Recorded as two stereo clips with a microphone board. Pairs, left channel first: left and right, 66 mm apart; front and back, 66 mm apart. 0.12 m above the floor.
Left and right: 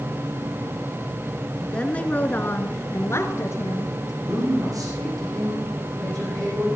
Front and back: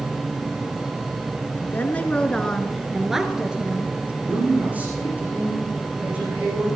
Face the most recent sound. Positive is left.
turn(degrees=-115)